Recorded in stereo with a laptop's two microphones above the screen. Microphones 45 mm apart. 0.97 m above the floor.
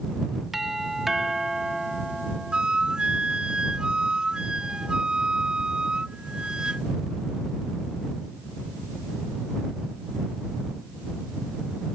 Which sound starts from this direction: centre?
A doorbell, at 0.5 s.